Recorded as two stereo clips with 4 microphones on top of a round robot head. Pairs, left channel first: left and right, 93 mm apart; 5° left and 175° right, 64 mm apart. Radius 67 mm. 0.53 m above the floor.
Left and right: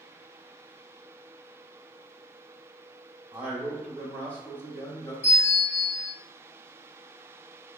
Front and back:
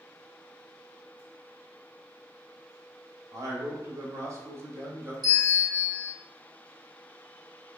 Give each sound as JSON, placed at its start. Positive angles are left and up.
{"t": 3.3, "sound": "a man speaking", "azimuth_deg": -165, "distance_m": 1.4}
{"t": 5.2, "sound": "a bell", "azimuth_deg": 170, "distance_m": 1.3}